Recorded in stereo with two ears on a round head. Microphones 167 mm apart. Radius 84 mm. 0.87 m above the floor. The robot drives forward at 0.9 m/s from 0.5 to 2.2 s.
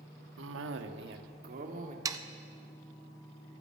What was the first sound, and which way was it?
A cough, 80° right.